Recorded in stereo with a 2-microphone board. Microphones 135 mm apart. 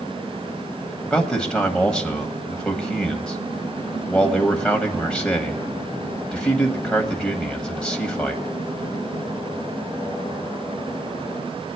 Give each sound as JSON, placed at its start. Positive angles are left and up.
{"t": 1.0, "sound": "a man speaking", "side_deg": 5, "distance_m": 1.3}